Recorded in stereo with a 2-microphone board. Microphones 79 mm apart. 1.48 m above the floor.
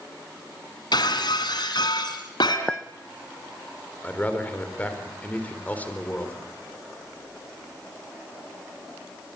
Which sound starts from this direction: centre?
A clink, at 2.7 s.